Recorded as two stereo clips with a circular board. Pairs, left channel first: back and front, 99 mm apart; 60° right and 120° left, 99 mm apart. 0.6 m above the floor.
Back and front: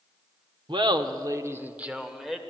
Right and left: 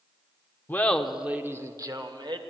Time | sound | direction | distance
0.7 | laughter | 5° left | 1.2 m